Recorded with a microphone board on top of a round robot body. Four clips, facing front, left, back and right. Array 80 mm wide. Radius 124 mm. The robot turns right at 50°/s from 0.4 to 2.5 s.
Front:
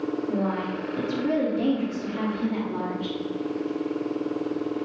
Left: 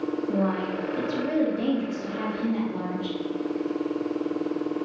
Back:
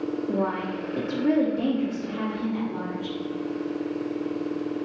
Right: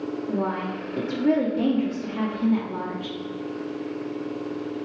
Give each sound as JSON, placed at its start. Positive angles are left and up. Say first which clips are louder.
{"t": 0.3, "sound": "a woman speaking", "louder": "even, back 2 dB", "azimuth_deg": -170, "distance_m": 1.1}